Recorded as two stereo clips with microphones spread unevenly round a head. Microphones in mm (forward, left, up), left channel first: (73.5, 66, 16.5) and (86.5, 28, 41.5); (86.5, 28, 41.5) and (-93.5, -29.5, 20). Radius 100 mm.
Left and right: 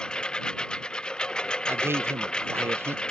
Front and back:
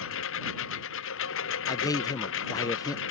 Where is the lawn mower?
40° left.